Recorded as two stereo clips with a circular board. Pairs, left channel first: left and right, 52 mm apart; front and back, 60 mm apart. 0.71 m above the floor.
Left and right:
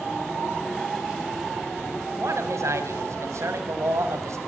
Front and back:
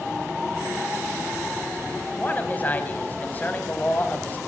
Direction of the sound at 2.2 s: 60° right.